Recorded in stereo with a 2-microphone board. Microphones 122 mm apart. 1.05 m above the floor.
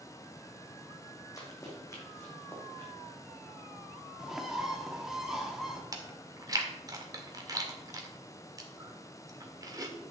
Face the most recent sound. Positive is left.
turn(degrees=-30)  # may be behind; listen again after turning